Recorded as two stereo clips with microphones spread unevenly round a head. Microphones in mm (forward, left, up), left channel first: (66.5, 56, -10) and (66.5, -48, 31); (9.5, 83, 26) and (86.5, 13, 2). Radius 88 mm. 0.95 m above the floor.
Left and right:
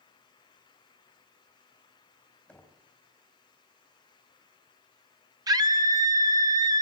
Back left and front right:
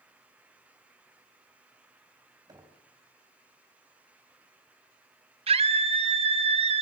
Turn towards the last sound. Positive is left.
turn(degrees=-30)